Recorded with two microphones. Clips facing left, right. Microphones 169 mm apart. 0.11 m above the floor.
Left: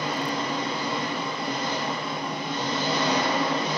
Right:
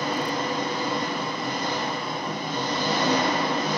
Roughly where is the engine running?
Right.